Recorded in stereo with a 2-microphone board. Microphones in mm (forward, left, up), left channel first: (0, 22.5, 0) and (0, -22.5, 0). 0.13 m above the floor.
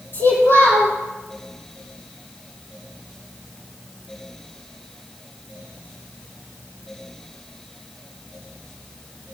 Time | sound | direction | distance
0.1 | a child speaking | 55° left (ahead or behind) | 3.5 m